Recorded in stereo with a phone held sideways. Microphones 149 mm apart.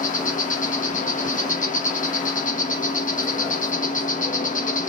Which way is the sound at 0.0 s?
55° left (ahead or behind).